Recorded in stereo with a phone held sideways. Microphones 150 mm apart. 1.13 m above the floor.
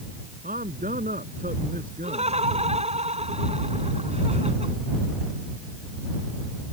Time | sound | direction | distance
0.4 | a man speaking | 70° right (ahead or behind) | ?
2.0 | laughter | 45° right (ahead or behind) | ?